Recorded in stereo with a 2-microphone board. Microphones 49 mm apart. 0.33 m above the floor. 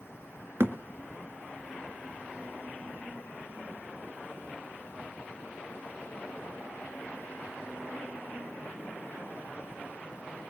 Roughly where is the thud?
Right.